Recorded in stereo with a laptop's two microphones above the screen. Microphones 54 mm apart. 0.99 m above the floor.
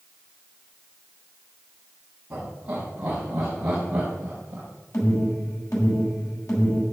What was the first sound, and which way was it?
Laughter, 15° right (ahead or behind).